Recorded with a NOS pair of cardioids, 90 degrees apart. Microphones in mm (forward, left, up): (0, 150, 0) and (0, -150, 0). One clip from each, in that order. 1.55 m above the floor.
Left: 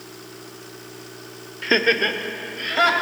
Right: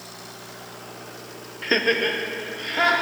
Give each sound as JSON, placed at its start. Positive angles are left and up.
{"t": 1.6, "sound": "laughter", "azimuth_deg": 5, "distance_m": 0.7}